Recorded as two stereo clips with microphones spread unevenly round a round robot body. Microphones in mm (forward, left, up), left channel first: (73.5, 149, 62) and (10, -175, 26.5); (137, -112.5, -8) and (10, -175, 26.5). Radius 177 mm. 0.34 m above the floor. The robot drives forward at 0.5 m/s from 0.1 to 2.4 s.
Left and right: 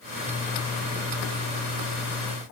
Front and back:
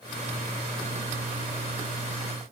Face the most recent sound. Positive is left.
No sound to turn to.